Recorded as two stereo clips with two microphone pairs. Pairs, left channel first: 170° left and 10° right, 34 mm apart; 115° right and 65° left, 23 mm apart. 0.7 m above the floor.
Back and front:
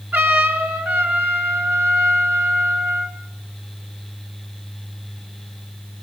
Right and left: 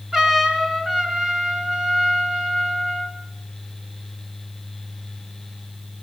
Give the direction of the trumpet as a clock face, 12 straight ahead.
12 o'clock.